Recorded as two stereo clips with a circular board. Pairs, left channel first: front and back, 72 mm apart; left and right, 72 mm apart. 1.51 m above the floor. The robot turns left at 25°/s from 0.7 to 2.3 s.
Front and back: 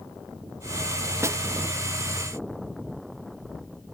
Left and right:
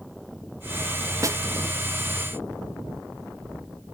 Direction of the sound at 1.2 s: 130° right.